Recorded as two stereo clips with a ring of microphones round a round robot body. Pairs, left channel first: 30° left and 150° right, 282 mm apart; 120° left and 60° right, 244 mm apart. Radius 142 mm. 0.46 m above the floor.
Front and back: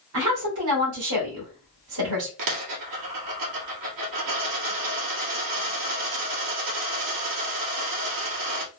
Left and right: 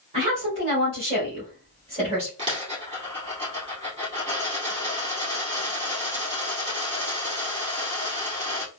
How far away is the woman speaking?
About 1.6 m.